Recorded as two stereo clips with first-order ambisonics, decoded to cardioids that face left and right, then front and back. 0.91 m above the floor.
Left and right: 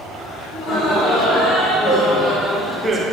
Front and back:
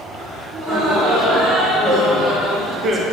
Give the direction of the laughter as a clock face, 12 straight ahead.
8 o'clock.